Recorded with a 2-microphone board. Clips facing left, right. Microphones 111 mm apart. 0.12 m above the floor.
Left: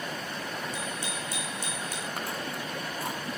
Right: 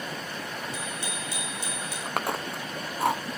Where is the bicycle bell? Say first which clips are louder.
Even; 45° left (ahead or behind), 7 m.